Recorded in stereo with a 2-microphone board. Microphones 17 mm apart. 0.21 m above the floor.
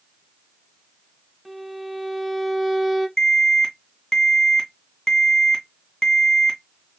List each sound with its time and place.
1.4 s a violin: 15° right (ahead or behind), 1.1 m
3.2 s an alarm: 35° left (ahead or behind), 2.5 m